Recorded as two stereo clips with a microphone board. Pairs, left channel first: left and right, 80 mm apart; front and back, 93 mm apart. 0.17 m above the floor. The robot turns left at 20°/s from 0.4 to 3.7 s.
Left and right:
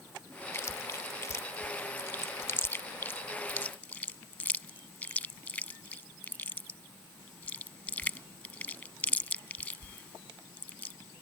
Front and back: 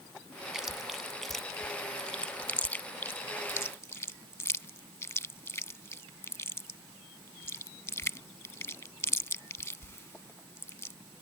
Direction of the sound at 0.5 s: 100° left.